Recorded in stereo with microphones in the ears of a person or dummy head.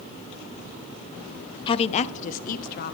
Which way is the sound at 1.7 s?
35° left (ahead or behind).